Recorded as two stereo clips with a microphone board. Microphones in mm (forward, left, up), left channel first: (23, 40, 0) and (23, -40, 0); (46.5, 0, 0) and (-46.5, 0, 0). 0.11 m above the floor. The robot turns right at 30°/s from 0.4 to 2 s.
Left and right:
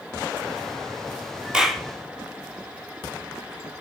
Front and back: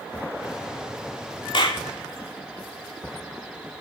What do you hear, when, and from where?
1.5 s a clap: 10° right, 2.5 m; by 1.8 s 5° right, 2.5 m